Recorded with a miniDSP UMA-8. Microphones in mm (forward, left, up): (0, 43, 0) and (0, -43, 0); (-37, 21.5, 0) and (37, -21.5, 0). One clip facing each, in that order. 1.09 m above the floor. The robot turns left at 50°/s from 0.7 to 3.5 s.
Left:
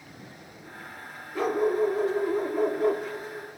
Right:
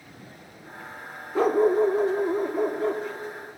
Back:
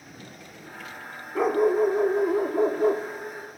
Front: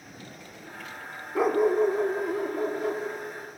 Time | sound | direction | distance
1.4 | a dog barking | 110° right | 0.7 m